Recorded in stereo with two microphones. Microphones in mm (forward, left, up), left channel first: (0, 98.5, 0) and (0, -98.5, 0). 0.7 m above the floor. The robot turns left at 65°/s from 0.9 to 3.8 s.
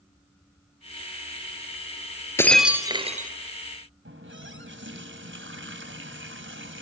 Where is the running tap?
85° right, 3 m.